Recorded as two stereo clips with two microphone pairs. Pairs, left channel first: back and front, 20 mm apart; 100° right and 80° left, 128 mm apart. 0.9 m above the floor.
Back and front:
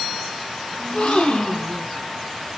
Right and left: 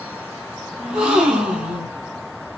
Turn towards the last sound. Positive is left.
turn(degrees=165)